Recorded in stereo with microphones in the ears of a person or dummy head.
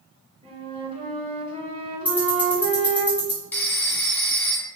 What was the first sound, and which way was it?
A flute, 30° right (ahead or behind).